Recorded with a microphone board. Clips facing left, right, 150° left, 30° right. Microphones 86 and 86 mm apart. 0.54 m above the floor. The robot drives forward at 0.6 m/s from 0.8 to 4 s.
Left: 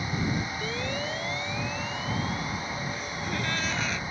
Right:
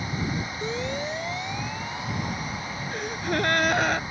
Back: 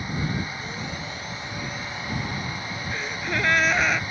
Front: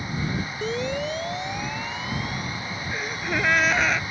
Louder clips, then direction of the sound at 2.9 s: Right 5 dB, front 1 dB; 110° right.